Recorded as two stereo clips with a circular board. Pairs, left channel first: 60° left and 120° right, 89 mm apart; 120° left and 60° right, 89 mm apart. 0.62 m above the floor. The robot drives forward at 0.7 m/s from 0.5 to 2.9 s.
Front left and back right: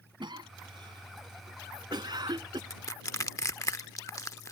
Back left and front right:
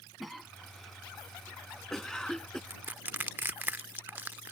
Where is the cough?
150° right; by 2.6 s 155° right.